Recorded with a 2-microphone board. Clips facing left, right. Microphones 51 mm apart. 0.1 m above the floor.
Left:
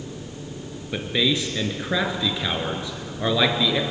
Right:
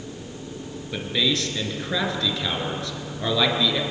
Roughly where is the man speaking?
Centre.